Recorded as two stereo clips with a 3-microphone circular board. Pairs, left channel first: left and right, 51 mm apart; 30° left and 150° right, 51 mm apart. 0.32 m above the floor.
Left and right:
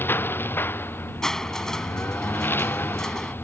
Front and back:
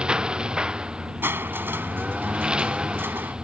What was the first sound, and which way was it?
A lawn mower, 135° left.